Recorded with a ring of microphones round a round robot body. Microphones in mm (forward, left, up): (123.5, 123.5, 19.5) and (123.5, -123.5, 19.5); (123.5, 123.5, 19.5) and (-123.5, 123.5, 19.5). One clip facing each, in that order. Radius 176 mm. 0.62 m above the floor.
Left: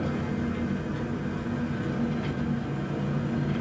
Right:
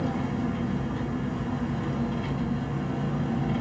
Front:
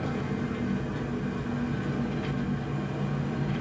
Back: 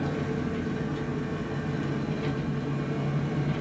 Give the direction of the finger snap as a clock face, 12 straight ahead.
No finger snap in this recording.